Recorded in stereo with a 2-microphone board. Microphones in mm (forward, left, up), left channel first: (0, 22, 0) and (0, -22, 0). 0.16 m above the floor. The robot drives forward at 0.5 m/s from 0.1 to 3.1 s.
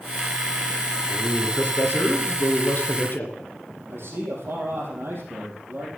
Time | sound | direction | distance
1.1 | a man speaking | 50° left (ahead or behind) | 2.5 m
3.9 | a man speaking | 60° right (ahead or behind) | 5.5 m